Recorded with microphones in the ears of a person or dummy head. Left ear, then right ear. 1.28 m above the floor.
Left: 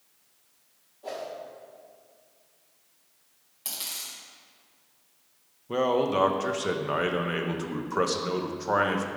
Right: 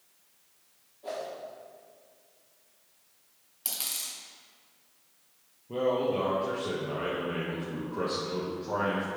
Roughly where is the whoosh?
Centre.